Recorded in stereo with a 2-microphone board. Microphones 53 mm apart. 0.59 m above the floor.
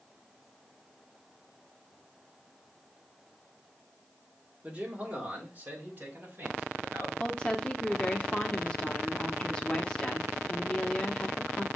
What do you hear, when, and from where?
4.6 s a man speaking: 30° right (ahead or behind), 1.3 m; by 7.1 s 45° right (ahead or behind), 2.5 m
7.2 s a woman speaking: 15° left (ahead or behind), 0.8 m